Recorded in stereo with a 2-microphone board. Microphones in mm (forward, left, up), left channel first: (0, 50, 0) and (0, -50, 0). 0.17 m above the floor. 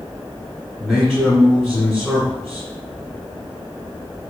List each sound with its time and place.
0.8 s a man speaking: 5° right (ahead or behind), 1.5 m